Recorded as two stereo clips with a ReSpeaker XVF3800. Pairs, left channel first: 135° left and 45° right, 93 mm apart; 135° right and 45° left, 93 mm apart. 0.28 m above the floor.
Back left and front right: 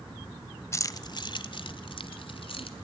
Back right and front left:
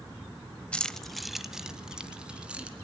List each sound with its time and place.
0.7 s keys jangling: 155° left, 0.6 m; by 2.7 s 120° left, 1.9 m